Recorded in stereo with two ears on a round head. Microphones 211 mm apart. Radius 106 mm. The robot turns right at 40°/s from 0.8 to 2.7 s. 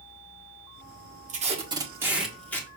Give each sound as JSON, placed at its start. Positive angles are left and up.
{"t": 1.3, "sound": "tape being pulled", "azimuth_deg": -40, "distance_m": 1.6}